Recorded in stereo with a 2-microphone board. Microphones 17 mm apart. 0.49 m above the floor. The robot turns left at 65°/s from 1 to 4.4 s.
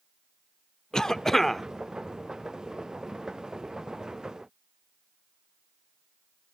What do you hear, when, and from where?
0.9 s a cough: 55° left, 0.9 m; by 1.6 s 15° left, 0.9 m